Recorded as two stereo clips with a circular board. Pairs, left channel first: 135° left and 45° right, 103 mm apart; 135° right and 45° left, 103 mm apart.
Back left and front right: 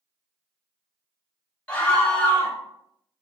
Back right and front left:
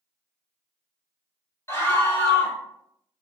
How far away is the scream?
About 1.2 m.